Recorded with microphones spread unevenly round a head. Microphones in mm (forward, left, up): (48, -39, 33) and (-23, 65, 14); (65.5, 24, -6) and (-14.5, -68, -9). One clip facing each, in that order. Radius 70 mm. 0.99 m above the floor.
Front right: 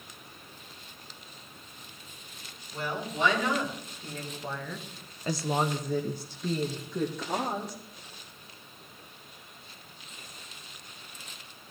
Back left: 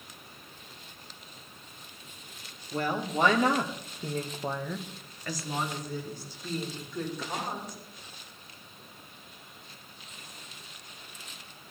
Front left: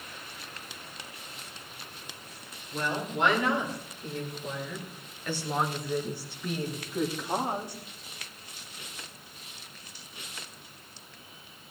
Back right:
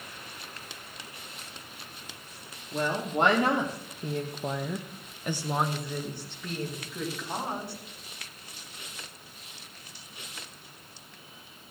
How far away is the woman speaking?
About 2.5 m.